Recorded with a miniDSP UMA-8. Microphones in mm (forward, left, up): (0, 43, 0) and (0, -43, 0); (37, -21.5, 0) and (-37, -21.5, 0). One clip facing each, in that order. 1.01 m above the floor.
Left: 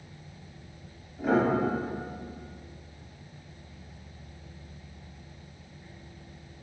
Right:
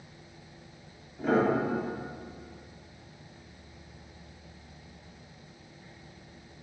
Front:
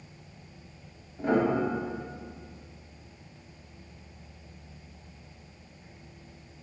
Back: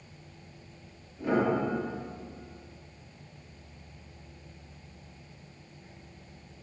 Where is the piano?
5° left, 0.8 m.